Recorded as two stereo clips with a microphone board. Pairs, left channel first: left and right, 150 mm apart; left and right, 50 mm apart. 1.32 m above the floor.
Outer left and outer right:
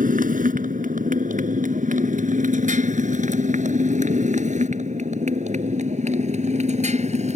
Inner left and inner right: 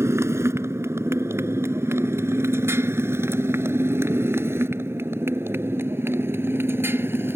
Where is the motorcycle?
60° right (ahead or behind); by 7.4 s 50° right (ahead or behind).